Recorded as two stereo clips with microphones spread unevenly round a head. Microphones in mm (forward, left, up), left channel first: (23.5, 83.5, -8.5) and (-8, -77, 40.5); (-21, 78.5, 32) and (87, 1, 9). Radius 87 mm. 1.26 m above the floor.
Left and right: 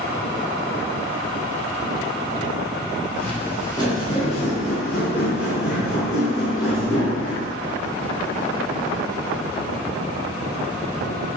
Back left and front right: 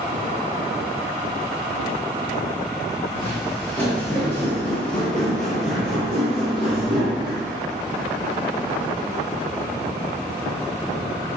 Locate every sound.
3.1 s footsteps: 170° right, 1.4 m; by 7.5 s 60° left, 2.5 m